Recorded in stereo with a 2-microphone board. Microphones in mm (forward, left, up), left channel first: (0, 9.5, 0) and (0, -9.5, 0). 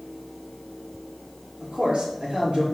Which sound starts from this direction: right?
A man speaking, at 1.6 s.